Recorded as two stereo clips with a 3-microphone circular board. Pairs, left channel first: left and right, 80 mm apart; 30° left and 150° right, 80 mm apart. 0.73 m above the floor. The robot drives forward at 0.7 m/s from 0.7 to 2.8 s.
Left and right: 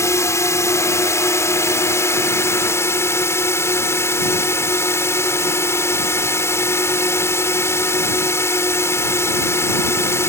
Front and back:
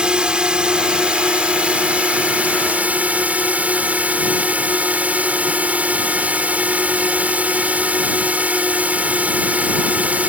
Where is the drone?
135° left; by 10.3 s 140° left.